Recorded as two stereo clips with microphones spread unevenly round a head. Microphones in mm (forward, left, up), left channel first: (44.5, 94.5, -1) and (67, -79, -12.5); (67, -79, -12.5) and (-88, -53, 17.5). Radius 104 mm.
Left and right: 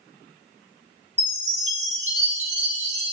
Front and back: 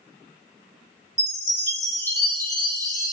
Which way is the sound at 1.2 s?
45° right.